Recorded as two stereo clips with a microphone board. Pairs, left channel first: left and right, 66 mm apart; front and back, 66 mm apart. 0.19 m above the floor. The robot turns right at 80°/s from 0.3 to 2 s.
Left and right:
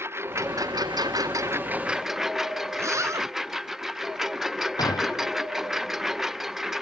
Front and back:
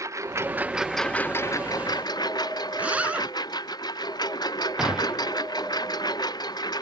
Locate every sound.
0.0 s a lawn mower: 140° right; by 6.8 s 5° right
2.7 s a zipper: 115° right
4.8 s a gunshot: 100° left